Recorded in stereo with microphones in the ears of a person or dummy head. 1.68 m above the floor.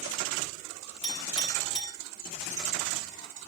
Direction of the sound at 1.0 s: 30° left (ahead or behind).